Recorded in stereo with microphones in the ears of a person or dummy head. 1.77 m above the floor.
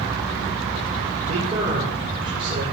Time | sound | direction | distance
1.3 | a man speaking | 35° right (ahead or behind) | 5 m